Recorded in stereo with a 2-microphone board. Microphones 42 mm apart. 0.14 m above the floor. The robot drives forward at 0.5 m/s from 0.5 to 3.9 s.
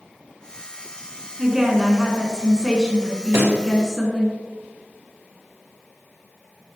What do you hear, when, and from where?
1.4 s a woman speaking: 10° right (ahead or behind), 1.4 m
3.3 s a pop: 60° right (ahead or behind), 2 m; by 3.6 s 65° right (ahead or behind), 2 m